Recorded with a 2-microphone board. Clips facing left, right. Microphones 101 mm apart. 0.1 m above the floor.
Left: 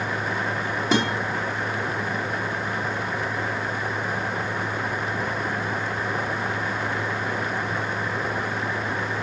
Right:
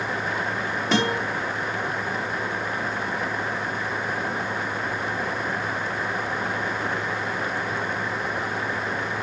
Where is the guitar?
5° left (ahead or behind), 5 m.